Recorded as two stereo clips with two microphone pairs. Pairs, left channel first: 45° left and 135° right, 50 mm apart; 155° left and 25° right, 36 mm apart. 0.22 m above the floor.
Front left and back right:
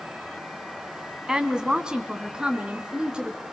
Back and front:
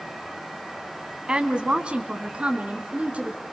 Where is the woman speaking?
75° right, 1.6 m; by 3.4 s 70° right, 3 m.